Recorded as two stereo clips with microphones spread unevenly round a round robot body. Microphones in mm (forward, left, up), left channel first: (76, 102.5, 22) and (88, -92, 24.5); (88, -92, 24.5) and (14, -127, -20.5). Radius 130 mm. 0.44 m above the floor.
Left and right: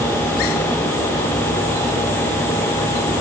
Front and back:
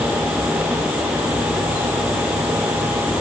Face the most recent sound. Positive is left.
No sound to turn to.